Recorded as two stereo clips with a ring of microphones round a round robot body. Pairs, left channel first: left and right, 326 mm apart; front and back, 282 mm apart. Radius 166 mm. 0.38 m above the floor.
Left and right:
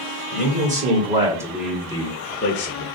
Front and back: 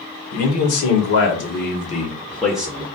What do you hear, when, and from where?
0.3 s a man speaking: 30° right, 1.8 m; by 2.8 s 105° left, 1.1 m